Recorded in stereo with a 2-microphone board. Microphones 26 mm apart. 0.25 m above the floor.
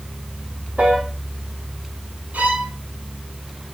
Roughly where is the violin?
Right.